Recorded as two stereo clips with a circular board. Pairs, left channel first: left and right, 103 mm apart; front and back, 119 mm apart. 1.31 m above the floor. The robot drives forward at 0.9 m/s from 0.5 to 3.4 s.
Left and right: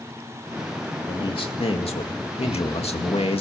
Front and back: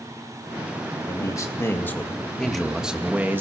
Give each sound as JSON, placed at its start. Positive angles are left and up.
{"t": 1.1, "sound": "a man speaking", "azimuth_deg": 55, "distance_m": 2.5}